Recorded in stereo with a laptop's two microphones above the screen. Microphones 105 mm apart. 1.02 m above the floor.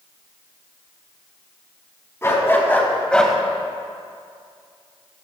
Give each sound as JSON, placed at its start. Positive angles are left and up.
{"t": 2.2, "sound": "a dog barking", "side_deg": 25, "distance_m": 3.5}